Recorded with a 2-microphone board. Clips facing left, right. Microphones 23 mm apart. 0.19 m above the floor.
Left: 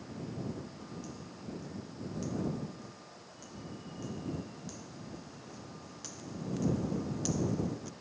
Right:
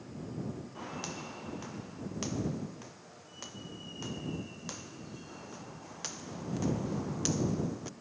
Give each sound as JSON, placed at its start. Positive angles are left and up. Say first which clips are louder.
{"t": 0.8, "sound": "footsteps", "louder": "right 5 dB", "side_deg": -60}